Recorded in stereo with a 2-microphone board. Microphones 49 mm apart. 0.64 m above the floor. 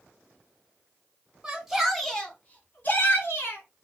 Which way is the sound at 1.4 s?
15° right (ahead or behind).